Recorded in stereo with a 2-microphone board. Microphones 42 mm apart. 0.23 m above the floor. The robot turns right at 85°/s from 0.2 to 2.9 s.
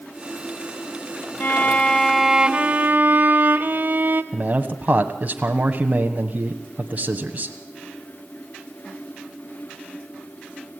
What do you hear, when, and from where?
1.4 s a violin: 115° left, 1.2 m; by 4.2 s 115° right, 1.2 m
4.3 s a man speaking: 35° right (ahead or behind), 1.3 m